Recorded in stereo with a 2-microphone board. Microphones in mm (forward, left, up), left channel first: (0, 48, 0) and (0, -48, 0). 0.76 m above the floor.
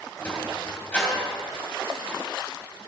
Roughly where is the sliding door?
Centre.